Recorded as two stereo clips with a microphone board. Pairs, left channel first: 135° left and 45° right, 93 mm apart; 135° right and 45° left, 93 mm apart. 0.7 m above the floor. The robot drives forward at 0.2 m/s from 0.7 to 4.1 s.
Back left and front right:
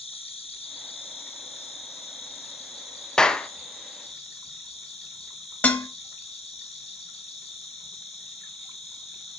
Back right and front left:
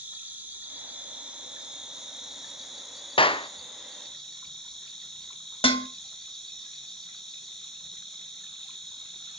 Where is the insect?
120° left, 1.1 m; by 9.4 s 140° left, 1.5 m.